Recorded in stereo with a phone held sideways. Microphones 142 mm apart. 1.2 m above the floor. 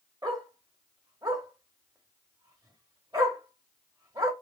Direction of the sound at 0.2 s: 25° right (ahead or behind).